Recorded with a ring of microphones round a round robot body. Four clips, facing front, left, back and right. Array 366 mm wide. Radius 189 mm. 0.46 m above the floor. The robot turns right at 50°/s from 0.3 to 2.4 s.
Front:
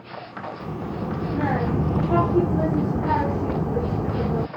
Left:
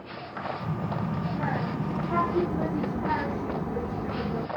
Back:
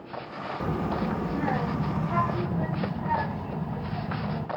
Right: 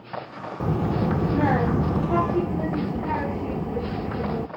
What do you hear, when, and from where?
0.6 s a child speaking: 105° right, 0.6 m; by 4.5 s 15° right, 0.6 m